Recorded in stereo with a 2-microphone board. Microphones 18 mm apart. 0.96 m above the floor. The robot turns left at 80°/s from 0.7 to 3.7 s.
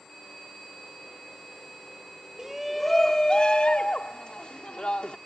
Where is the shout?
150° right; by 5.2 s 105° left.